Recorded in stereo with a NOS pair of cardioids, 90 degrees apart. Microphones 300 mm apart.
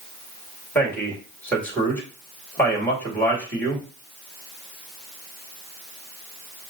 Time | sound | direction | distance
0.8 | a man speaking | 5° left | 2.0 m